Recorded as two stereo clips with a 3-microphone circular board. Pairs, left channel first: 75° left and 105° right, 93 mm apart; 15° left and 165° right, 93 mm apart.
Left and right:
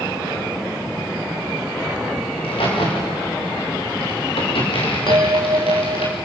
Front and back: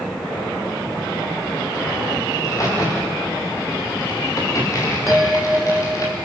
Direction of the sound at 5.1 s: 80° right.